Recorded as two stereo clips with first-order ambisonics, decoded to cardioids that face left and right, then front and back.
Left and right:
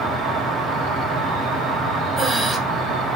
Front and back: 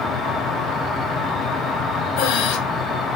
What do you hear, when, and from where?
0.0 s an insect: 70° right, 4 m
2.2 s breathing: 15° right, 1.5 m